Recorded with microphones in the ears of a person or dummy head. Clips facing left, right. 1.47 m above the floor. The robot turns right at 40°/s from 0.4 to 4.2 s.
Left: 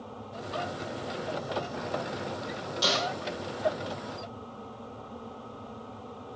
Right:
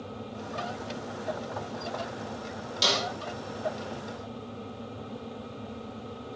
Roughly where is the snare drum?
Right.